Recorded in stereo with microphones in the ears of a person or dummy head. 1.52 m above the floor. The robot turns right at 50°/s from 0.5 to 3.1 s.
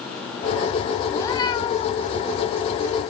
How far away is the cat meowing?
About 1.7 m.